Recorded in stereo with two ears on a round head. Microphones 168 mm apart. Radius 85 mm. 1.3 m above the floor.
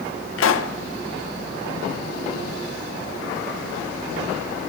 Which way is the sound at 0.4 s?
80° left.